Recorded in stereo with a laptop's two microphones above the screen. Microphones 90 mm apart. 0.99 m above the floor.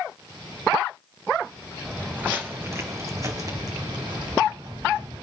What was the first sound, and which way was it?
Footsteps, 10° right (ahead or behind).